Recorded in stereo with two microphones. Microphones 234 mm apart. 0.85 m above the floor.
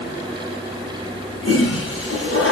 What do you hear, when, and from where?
1.4 s a toilet flushing: 60° left (ahead or behind), 10 m